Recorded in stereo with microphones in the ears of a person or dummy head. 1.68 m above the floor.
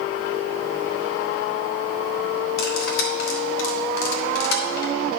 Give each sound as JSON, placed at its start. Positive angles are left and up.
{"t": 2.6, "sound": "cutlery clinking", "side_deg": 60, "distance_m": 1.6}